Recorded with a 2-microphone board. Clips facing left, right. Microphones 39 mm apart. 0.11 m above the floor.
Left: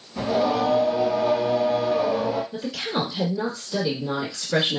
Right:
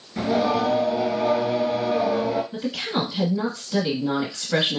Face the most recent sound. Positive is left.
turn(degrees=-15)  # may be behind; listen again after turning